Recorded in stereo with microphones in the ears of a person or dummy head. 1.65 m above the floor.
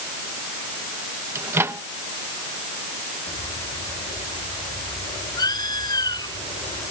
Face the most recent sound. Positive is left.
turn(degrees=20)  # may be behind; listen again after turning